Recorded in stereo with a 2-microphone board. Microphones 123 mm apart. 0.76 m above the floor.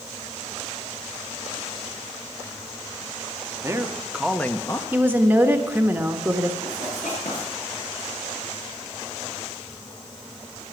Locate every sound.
3.6 s a man speaking: 20° right (ahead or behind), 1.4 m; by 4.8 s 30° left (ahead or behind), 0.9 m
4.9 s a woman speaking: 15° right (ahead or behind), 1.2 m
6.6 s writing: 80° left, 6 m